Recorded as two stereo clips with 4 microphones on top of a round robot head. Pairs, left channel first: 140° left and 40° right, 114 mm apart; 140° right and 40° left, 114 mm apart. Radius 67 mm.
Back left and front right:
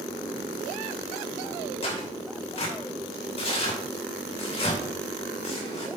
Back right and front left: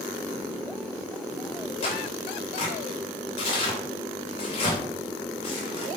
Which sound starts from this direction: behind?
Tearing paper, at 1.8 s.